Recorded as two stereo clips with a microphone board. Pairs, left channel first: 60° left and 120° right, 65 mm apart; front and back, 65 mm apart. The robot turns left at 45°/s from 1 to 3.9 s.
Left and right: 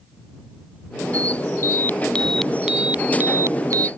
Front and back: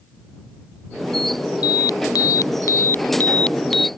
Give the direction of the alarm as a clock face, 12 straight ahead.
12 o'clock.